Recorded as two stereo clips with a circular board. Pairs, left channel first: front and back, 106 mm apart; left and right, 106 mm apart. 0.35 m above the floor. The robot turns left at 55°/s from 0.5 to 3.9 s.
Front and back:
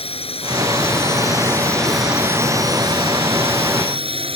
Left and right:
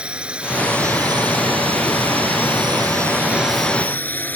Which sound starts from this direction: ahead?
A drone, at 0.0 s.